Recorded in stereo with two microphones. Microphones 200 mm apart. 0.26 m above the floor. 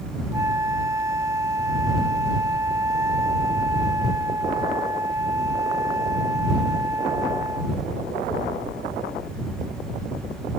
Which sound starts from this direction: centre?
A flute, at 0.3 s.